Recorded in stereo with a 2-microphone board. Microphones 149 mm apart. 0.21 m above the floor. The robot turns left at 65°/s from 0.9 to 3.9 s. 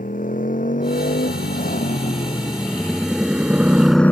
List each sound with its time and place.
0.0 s a motorcycle: 65° left (ahead or behind); by 4.1 s 15° left (ahead or behind)